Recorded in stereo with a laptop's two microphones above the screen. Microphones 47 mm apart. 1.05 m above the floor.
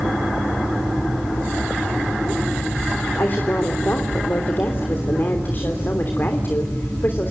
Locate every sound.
3.2 s a woman speaking: 45° left (ahead or behind), 3 m